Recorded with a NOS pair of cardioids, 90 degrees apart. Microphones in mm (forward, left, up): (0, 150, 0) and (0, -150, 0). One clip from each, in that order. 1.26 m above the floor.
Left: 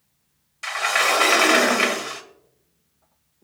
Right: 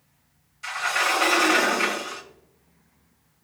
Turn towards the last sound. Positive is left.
turn(degrees=65)